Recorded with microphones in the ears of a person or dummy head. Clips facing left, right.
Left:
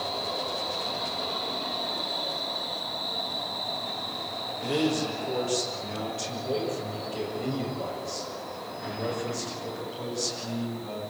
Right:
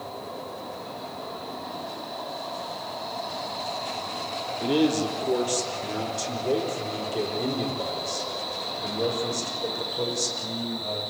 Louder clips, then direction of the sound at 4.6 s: Right 4 dB; 55° right (ahead or behind).